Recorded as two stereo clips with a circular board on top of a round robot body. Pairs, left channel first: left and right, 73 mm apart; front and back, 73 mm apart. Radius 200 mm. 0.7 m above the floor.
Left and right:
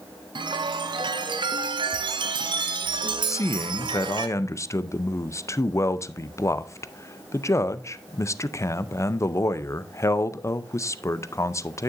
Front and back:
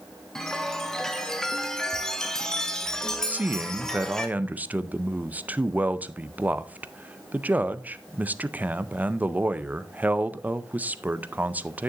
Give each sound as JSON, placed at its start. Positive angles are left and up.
{"t": 0.3, "sound": "a chime", "azimuth_deg": -80, "distance_m": 0.6}
{"t": 3.3, "sound": "a man speaking", "azimuth_deg": 120, "distance_m": 0.6}